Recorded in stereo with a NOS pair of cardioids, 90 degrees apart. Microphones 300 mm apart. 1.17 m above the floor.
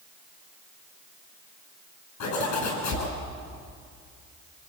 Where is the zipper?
65° left, 10 m.